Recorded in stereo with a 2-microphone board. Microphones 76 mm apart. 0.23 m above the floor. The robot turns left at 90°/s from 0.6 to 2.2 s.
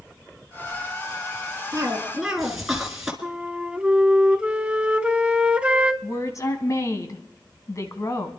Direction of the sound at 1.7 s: 130° right.